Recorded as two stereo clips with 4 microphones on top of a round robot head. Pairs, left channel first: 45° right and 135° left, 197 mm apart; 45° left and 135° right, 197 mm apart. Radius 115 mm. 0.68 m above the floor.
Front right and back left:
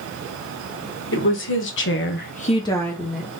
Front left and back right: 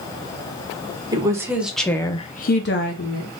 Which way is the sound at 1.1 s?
65° right.